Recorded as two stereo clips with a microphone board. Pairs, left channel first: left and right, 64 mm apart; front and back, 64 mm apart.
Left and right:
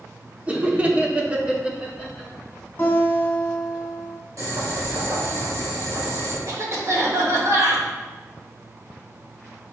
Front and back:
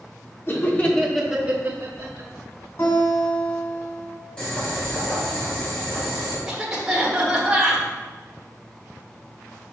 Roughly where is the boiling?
Right.